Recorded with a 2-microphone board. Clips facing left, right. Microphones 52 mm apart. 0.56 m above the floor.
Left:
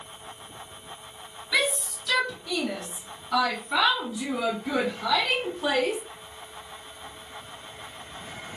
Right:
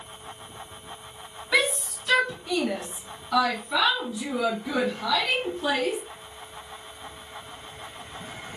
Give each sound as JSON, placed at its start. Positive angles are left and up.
{"t": 1.5, "sound": "a shout", "side_deg": -35, "distance_m": 1.4}